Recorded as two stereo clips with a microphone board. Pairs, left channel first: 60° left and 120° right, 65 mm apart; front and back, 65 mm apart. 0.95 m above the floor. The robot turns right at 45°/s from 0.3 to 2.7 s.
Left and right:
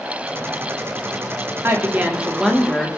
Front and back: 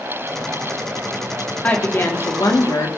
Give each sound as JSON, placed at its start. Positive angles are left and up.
{"t": 1.6, "sound": "a woman speaking", "azimuth_deg": -70, "distance_m": 1.7}